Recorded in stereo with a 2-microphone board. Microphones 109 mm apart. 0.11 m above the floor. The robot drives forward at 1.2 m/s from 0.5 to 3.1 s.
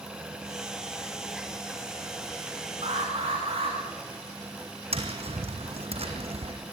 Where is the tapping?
65° right (ahead or behind), 3 m.